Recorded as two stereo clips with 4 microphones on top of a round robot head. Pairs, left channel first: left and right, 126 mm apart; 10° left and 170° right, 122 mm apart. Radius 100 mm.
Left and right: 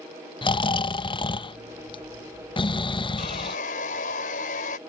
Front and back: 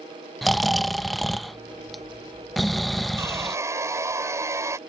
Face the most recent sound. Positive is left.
turn(degrees=125)